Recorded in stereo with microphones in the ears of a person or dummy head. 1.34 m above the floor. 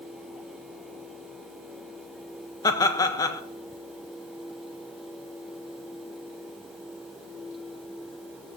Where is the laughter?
25° left (ahead or behind), 1.5 m.